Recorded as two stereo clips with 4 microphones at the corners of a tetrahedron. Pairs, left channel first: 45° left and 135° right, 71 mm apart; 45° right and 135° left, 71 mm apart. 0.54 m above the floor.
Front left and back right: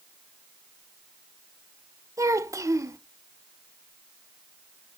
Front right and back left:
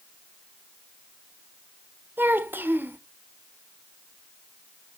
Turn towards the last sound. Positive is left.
turn(degrees=-170)